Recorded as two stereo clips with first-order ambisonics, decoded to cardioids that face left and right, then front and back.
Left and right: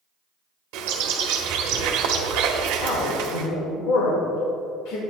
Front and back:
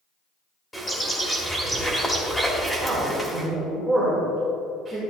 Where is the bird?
85° right, 1.3 m.